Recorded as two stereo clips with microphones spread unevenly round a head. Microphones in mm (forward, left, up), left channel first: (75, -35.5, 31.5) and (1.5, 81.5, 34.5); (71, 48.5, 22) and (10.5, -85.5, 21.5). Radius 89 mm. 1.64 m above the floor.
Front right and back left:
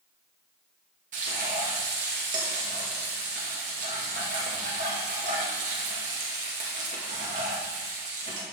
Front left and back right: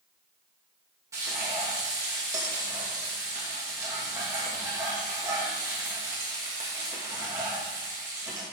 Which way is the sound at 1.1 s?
170° left.